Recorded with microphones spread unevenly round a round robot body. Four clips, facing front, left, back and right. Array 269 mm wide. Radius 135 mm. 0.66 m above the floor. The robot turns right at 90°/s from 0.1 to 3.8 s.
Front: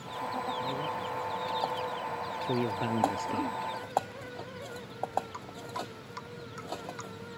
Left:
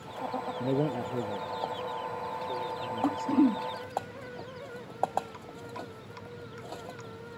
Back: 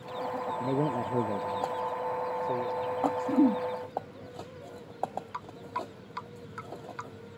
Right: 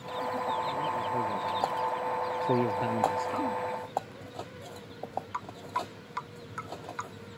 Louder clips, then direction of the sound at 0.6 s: Left 1 dB, back 5 dB; 120° left.